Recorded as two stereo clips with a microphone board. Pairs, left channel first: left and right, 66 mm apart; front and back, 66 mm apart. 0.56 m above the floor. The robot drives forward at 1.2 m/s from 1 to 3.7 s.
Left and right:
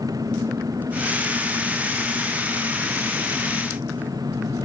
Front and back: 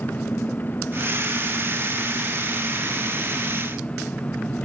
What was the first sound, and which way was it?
An engine running, 65° right.